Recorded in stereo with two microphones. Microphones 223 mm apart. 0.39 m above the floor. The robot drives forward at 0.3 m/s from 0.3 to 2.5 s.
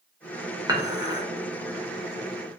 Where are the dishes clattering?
15° right (ahead or behind), 0.6 m.